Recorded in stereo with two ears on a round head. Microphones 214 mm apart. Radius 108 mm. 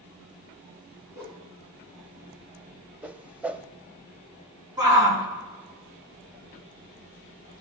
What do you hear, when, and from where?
1.1 s a whoosh: 10° right (ahead or behind), 4.5 m
3.0 s a whoosh: 5° right (ahead or behind), 0.6 m
4.8 s a shout: 15° right (ahead or behind), 5.5 m